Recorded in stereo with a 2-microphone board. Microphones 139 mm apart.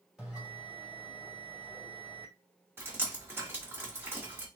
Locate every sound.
0.2 s a bell: centre (ahead or behind), 1.7 m
2.8 s dripping: 15° right (ahead or behind), 1.5 m